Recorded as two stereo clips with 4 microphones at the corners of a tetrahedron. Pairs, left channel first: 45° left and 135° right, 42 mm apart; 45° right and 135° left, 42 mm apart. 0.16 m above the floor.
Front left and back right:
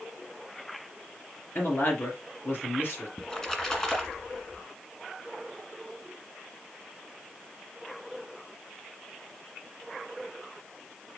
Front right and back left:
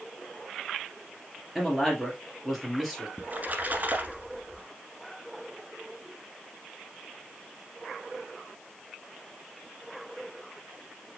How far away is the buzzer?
No buzzer in this recording.